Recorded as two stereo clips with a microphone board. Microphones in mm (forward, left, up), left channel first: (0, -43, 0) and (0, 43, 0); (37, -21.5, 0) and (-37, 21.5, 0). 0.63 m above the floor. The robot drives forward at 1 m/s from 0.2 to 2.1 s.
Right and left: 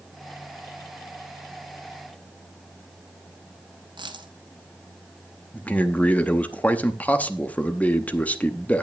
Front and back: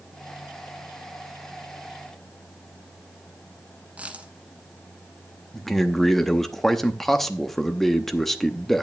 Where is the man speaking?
110° right, 0.8 m.